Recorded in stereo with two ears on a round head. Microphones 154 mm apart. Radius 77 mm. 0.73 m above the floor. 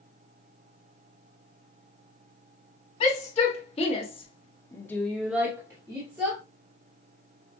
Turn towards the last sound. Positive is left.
turn(degrees=-25)  # may be behind; listen again after turning